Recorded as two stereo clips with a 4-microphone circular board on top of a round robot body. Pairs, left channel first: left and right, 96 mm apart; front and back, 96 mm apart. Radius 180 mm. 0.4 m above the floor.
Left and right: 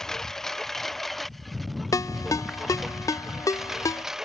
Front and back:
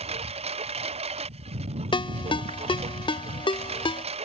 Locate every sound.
0.0 s a lawn mower: 175° left; by 4.3 s 175° right
1.9 s a ringtone: 35° left